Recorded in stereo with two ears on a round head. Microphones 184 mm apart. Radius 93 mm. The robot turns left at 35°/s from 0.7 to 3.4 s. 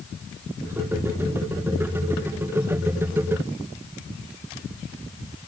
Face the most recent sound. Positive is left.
No sound to turn to.